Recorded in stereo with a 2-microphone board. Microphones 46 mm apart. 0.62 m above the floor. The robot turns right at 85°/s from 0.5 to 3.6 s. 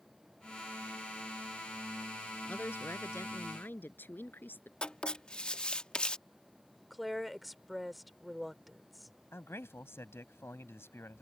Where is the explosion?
I don't hear an explosion.